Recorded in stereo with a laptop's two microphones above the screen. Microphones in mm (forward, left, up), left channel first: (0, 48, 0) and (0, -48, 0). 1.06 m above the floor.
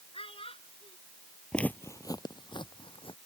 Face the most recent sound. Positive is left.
turn(degrees=60)  # may be behind; listen again after turning